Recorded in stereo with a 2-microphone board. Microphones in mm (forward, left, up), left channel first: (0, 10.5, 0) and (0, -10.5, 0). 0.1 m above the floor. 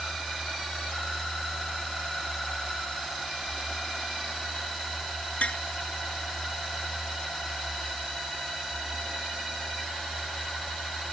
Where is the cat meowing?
No cat meowing in this recording.